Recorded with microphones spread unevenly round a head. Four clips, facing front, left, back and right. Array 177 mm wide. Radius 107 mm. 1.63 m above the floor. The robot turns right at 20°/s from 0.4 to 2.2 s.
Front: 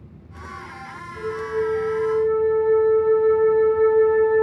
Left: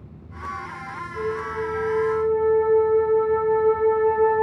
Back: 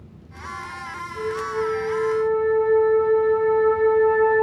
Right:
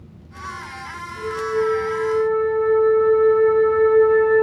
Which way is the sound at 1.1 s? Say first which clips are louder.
Right 5 dB, front 1 dB; 155° left.